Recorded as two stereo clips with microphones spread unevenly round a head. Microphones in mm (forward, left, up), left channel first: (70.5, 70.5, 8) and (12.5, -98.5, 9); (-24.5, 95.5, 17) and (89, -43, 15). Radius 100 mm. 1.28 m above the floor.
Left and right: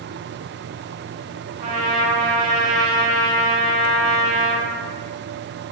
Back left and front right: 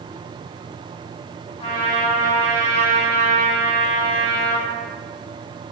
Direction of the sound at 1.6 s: 165° right.